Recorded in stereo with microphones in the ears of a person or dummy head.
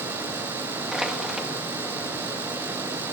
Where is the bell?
No bell in this recording.